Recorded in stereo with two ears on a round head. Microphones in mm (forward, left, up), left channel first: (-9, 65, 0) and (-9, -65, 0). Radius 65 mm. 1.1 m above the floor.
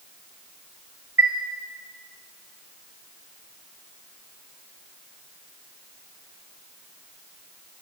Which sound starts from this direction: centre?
A chime, at 1.2 s.